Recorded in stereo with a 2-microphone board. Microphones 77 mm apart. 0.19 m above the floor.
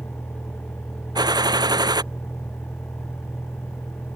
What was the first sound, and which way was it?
A vehicle, 35° left (ahead or behind).